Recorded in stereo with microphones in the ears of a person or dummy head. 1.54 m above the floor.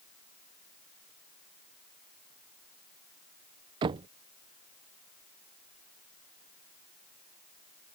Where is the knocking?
25° right (ahead or behind).